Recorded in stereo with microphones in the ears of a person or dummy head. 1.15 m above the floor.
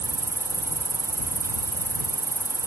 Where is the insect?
15° right (ahead or behind).